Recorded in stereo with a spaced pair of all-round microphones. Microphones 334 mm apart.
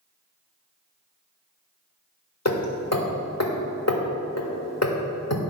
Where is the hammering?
50° left (ahead or behind), 1.5 m.